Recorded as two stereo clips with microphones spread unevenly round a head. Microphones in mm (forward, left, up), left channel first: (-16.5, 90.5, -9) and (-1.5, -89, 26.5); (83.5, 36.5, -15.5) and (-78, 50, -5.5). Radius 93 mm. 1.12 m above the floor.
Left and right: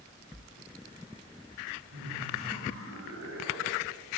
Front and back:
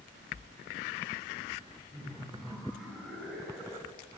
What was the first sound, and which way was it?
Laughter, 95° right.